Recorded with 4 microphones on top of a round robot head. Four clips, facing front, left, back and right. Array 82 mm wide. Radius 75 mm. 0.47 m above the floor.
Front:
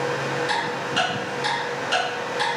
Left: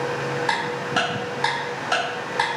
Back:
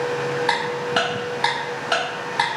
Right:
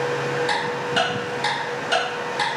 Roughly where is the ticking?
Behind left.